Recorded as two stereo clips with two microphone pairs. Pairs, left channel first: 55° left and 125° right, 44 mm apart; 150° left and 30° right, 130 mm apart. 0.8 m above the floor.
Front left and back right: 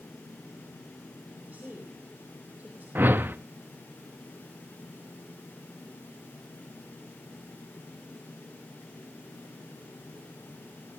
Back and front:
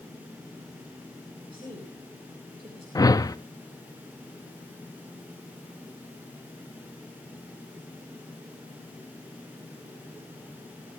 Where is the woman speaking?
70° right, 3.5 m.